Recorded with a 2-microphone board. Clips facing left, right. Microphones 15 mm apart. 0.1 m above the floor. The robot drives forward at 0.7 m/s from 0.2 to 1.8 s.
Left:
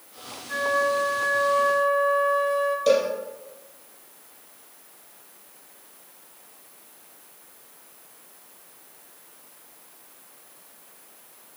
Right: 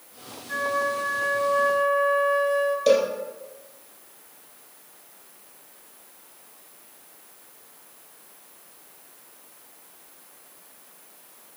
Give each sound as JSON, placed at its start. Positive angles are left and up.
{"t": 0.5, "sound": "a flute", "side_deg": -20, "distance_m": 0.8}
{"t": 2.9, "sound": "a cowbell", "side_deg": -15, "distance_m": 2.5}